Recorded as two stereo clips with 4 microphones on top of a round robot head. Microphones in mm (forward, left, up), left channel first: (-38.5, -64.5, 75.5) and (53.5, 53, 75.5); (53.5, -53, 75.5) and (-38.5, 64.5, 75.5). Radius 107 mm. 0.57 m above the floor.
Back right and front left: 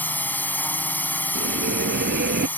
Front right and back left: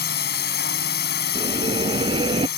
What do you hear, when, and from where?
0.0 s a drone: 50° right
1.4 s a bell: 70° left